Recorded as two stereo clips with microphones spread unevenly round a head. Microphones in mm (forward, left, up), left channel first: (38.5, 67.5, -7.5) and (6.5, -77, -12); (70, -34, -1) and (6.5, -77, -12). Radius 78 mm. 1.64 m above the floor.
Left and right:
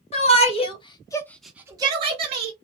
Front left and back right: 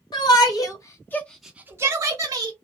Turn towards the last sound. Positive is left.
turn(degrees=-140)